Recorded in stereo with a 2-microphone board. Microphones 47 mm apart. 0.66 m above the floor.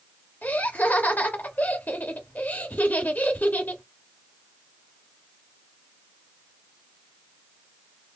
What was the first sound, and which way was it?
Laughter, 40° left (ahead or behind).